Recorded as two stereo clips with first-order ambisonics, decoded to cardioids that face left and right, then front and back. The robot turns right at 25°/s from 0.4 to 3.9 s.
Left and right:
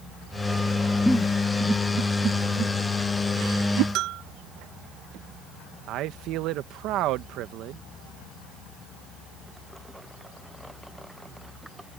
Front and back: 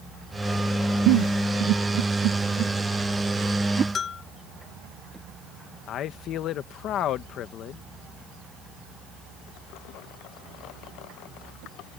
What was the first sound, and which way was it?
A giggle, 175° left.